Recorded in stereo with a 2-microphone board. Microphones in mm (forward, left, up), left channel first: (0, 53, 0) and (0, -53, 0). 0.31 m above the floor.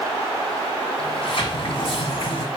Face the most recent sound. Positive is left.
turn(degrees=60)  # may be behind; listen again after turning